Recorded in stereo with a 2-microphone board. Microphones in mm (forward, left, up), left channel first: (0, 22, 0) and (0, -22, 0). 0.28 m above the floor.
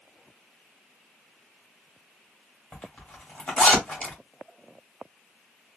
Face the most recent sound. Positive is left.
turn(degrees=25)  # may be behind; listen again after turning